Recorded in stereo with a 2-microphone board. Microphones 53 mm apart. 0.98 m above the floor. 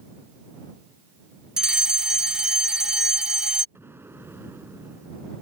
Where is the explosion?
45° right (ahead or behind).